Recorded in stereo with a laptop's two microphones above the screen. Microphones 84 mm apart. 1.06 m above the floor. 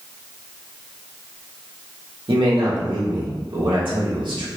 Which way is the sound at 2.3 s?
75° right (ahead or behind).